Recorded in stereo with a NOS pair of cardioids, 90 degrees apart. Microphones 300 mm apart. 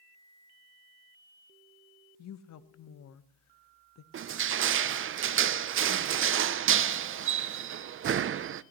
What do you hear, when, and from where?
2.2 s a woman speaking: 65° left, 1.3 m
4.1 s crushing: 45° right, 0.7 m